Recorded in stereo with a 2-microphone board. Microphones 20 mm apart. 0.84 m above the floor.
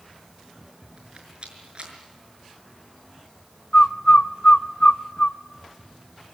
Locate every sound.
1.0 s a rattle: 55° right (ahead or behind), 5.5 m
3.7 s a bird: 50° left (ahead or behind), 1.1 m